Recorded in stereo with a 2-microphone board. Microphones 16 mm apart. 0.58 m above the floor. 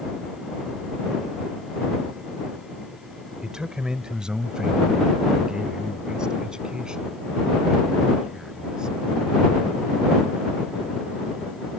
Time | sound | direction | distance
3.4 | a man speaking | 50° right (ahead or behind) | ?